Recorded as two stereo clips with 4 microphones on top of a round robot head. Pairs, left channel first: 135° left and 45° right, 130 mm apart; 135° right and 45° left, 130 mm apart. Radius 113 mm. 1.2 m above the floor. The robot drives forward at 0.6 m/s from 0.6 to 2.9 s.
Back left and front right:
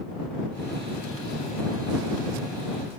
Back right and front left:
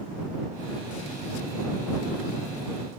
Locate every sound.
Only background noise.